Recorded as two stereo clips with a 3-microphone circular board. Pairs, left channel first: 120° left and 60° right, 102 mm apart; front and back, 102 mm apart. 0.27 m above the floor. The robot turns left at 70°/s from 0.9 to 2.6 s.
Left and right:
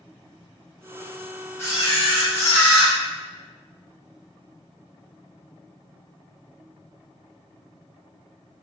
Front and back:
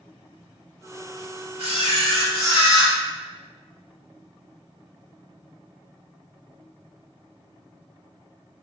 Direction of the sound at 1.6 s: 175° right.